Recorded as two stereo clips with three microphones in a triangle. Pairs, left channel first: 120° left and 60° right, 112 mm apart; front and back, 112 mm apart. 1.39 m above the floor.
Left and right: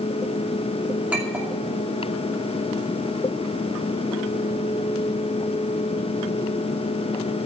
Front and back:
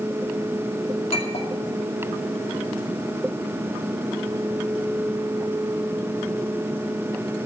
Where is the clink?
20° left, 2.5 m.